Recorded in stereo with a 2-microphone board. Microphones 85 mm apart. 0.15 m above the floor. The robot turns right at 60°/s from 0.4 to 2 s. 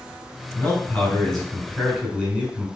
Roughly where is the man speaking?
Left.